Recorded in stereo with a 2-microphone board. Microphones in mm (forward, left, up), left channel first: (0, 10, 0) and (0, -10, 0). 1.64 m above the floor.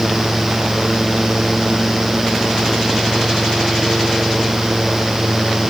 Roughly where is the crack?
No crack in this recording.